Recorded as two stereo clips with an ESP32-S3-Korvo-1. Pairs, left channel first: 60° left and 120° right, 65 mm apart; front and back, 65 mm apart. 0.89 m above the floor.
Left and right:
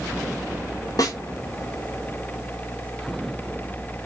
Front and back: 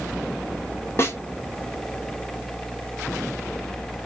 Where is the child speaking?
No child speaking in this recording.